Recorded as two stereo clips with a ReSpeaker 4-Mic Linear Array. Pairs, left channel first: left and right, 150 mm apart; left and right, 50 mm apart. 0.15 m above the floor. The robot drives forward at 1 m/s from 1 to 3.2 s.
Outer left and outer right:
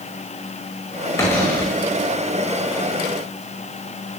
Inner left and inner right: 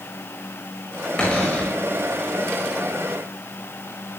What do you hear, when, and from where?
1.2 s a cupboard door: 20° left (ahead or behind), 5 m